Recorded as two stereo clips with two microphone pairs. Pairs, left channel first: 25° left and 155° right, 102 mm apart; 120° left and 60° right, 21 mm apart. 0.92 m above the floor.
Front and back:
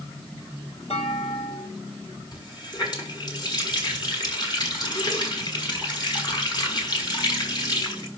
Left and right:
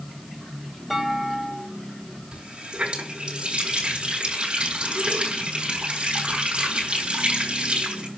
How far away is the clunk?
About 3.5 m.